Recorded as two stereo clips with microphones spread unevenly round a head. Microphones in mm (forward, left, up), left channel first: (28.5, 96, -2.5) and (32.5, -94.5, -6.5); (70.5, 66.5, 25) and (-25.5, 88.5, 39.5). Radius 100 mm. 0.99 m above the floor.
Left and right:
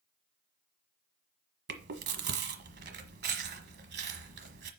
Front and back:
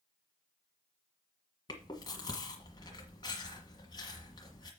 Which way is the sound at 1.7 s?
80° right.